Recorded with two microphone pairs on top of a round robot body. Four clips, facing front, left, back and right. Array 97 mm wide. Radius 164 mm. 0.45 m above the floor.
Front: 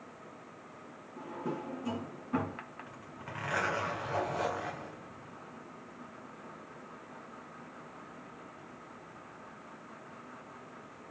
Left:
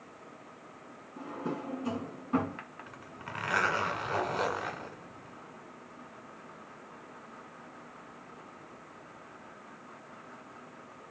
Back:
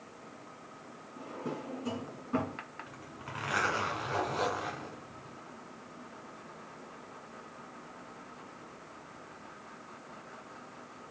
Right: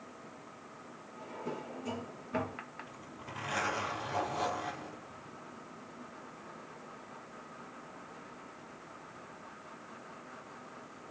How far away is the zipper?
About 2 m.